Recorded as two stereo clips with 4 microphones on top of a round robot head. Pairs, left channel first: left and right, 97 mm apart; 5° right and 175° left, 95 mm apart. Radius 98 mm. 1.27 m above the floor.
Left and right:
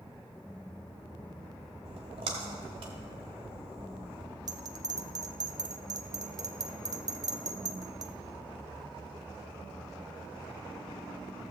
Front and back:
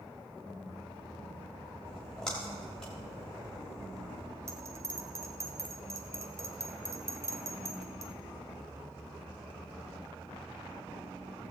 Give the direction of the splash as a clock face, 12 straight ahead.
3 o'clock.